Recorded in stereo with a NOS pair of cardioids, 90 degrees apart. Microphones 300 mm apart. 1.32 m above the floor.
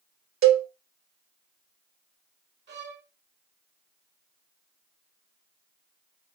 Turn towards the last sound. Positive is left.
turn(degrees=-35)